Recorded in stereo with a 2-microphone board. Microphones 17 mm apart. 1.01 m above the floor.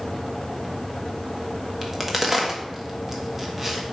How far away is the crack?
About 1.3 m.